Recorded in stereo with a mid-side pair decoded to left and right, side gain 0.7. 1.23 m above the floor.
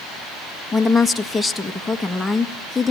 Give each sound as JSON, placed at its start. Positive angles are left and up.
{"t": 0.7, "sound": "a woman speaking", "azimuth_deg": 10, "distance_m": 1.8}